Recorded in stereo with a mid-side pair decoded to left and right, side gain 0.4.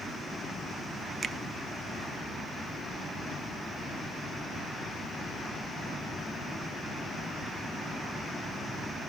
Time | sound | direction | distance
1.2 | a finger snap | 45° right | 0.8 m